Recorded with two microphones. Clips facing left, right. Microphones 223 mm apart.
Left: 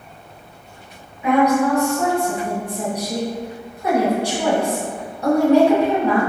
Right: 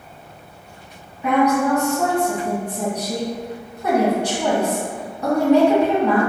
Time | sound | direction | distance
1.2 | a woman speaking | 10° left (ahead or behind) | 1.6 m